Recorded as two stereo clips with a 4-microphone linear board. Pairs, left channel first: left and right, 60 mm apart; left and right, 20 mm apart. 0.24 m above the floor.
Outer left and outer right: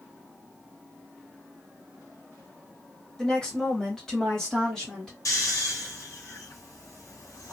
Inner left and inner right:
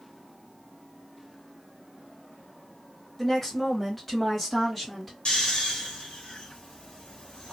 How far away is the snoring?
About 1.5 m.